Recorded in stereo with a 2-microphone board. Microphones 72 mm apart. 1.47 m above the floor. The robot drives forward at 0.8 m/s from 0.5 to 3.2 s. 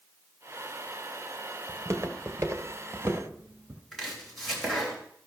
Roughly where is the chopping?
Centre.